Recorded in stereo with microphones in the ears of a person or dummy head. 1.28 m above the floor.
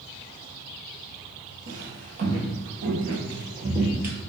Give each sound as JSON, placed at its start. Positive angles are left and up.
{"t": 1.7, "sound": "footsteps", "side_deg": -50, "distance_m": 2.0}